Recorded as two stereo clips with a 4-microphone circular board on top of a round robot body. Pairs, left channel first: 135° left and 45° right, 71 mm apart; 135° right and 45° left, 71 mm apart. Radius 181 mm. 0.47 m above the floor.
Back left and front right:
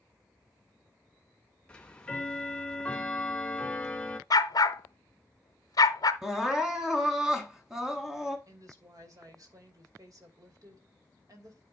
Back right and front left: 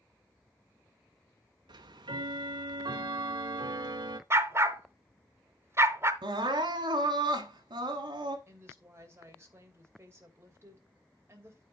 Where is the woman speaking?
10° right, 2.5 m.